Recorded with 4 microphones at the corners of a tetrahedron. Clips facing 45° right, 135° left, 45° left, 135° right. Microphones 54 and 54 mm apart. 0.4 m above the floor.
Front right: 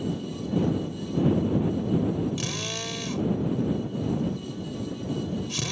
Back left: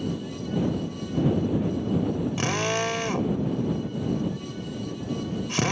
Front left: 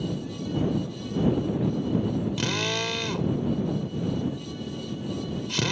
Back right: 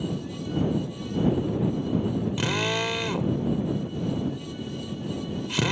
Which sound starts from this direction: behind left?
A drill, at 2.4 s.